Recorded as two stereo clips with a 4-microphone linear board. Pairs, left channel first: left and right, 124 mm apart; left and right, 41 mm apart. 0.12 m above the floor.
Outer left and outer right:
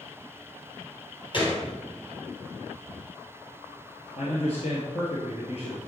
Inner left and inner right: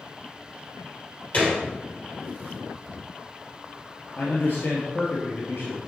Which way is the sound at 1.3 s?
45° left (ahead or behind).